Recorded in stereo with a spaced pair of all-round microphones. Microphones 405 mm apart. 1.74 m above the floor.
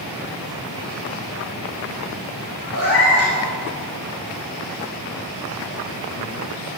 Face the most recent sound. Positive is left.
turn(degrees=-50)  # may be behind; listen again after turning